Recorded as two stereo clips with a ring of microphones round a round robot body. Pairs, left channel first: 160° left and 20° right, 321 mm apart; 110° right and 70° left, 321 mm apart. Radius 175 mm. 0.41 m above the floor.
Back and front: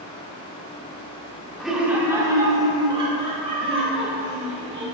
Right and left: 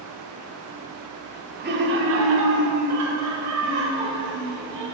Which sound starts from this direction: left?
Laughter, at 1.6 s.